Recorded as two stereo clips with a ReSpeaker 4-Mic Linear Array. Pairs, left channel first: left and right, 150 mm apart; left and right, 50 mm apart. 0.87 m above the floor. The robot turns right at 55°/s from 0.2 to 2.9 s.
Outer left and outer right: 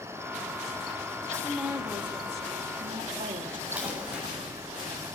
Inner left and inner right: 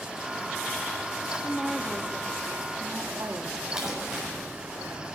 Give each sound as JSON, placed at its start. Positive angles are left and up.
{"t": 1.4, "sound": "a woman speaking", "azimuth_deg": 175, "distance_m": 1.1}
{"t": 3.8, "sound": "crumpling", "side_deg": -10, "distance_m": 6.5}